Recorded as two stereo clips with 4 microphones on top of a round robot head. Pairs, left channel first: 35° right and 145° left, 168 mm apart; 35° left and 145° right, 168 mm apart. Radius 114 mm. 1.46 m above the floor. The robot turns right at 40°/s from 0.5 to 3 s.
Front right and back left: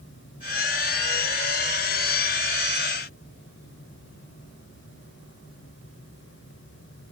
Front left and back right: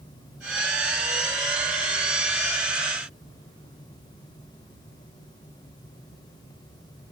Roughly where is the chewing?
No chewing in this recording.